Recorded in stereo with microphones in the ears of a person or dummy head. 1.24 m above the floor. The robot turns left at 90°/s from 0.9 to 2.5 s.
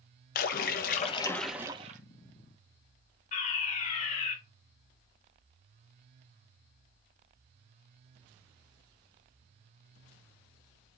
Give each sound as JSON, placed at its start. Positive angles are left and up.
{"t": 0.3, "sound": "a splash", "azimuth_deg": 50, "distance_m": 1.1}
{"t": 3.3, "sound": "a fire alarm", "side_deg": 45, "distance_m": 2.5}